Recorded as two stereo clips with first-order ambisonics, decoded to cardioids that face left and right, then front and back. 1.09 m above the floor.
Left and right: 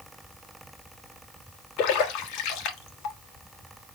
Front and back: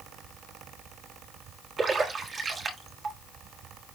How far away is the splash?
About 1.5 m.